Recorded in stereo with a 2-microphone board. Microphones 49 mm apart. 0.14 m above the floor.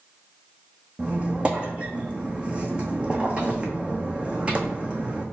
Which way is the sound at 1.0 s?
25° right (ahead or behind).